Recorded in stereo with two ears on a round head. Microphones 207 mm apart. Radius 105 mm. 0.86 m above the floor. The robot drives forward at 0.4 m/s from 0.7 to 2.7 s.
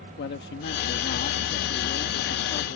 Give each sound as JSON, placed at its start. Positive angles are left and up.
{"t": 0.2, "sound": "a man speaking", "side_deg": 50}